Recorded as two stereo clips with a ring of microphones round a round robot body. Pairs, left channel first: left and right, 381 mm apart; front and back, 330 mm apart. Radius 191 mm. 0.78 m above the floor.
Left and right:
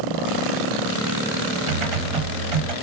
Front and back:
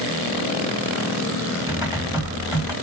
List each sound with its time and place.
1.7 s typing on a keyboard: 85° right, 1.3 m